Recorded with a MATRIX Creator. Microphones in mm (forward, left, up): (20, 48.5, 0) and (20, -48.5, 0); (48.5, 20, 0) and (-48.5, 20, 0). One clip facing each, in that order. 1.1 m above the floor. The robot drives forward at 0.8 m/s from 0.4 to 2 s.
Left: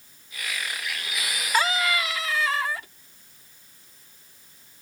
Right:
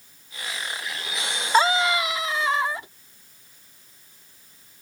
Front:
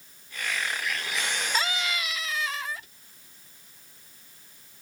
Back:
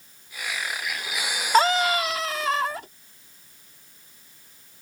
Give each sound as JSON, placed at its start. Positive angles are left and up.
{"t": 1.5, "sound": "a scream", "azimuth_deg": -150}